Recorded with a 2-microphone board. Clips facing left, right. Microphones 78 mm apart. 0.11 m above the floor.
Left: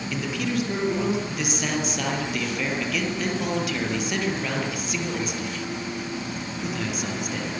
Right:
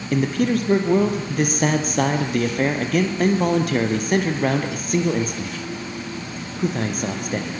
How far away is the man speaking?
About 3 m.